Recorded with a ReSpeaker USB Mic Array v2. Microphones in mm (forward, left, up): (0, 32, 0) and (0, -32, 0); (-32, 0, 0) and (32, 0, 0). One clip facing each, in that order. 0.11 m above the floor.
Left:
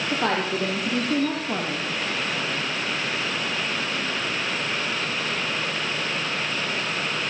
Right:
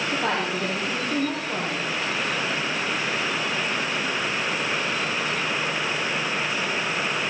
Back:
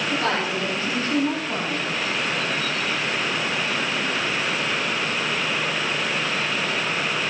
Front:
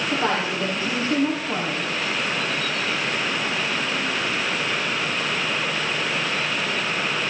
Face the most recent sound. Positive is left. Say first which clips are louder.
# left 3 dB, front 1 dB
turn(degrees=70)